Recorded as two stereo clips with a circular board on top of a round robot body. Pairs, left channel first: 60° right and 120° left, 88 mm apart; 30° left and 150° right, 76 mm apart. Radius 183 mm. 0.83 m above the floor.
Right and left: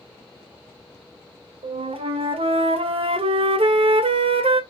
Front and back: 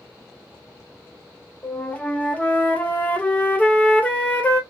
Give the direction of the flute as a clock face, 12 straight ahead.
9 o'clock.